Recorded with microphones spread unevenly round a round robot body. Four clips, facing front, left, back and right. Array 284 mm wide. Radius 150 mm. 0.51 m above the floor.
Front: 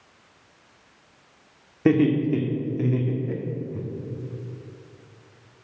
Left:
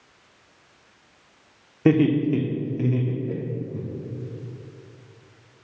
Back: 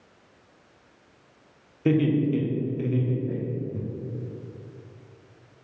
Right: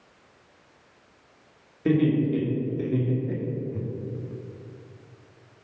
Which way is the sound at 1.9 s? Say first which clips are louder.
Left 3 dB, front 3 dB; 50° left.